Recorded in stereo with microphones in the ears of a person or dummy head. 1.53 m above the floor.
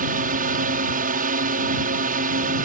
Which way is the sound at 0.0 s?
40° right (ahead or behind).